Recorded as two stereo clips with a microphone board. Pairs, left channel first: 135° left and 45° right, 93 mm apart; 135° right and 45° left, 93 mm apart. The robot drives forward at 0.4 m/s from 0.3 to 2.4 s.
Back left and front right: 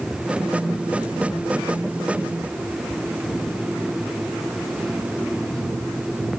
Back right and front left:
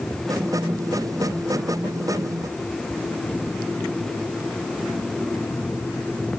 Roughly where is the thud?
No thud in this recording.